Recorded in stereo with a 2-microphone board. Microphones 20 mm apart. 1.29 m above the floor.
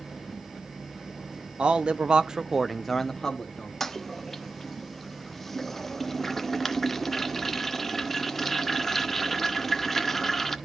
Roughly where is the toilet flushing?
Centre.